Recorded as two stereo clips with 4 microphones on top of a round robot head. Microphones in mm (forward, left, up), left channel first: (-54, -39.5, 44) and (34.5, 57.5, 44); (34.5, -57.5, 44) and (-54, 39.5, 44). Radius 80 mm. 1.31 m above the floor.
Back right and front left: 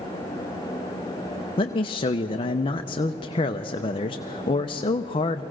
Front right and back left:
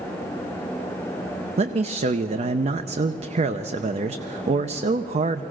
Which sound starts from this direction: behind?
A man speaking, at 1.6 s.